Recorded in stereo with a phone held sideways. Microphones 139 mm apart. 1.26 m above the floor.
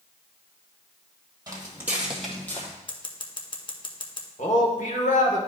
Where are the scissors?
35° left (ahead or behind), 0.8 m.